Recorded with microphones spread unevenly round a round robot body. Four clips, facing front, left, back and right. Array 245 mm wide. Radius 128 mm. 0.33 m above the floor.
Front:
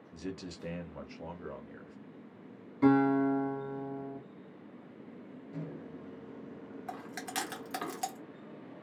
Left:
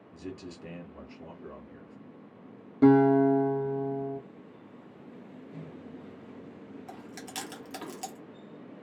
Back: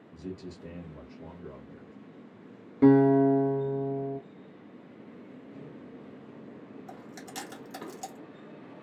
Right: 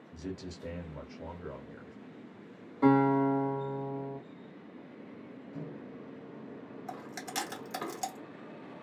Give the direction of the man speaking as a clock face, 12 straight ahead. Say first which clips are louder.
Even, back 1 dB; 2 o'clock.